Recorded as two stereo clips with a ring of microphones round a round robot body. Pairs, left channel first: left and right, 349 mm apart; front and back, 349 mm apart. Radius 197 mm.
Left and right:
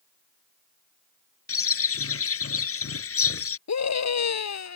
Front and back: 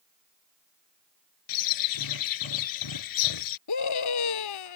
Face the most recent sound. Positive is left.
turn(degrees=45)